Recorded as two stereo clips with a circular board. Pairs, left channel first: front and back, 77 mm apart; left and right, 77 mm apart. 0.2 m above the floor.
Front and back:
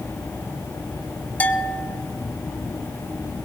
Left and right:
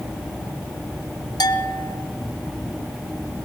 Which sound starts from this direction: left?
A bell, at 1.4 s.